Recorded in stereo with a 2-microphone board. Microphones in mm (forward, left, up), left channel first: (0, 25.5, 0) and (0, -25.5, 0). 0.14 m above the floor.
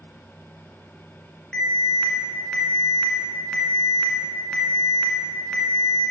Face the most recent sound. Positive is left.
turn(degrees=15)  # may be behind; listen again after turning